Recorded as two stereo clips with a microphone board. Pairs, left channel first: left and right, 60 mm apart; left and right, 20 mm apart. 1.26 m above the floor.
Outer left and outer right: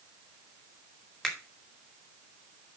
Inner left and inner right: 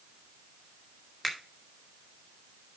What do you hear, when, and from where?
1.2 s a finger snap: 5° left (ahead or behind), 2.5 m